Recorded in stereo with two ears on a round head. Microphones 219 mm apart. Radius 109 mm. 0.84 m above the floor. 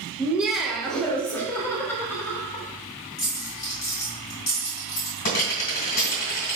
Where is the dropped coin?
35° left (ahead or behind), 1.9 m.